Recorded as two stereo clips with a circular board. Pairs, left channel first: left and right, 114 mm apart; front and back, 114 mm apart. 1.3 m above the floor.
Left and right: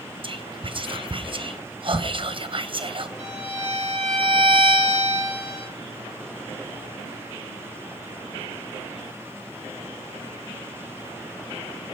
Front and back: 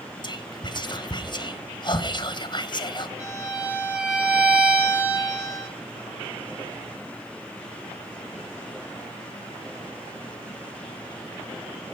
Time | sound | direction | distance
0.2 | whispering | 50° right | 1.0 m
3.2 | a violin | 105° right | 8 m